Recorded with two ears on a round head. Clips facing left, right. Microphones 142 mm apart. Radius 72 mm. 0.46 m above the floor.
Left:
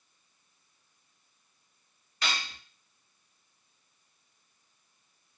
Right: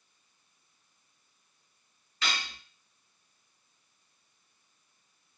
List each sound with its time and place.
2.2 s cutlery clinking: 30° left (ahead or behind), 1.0 m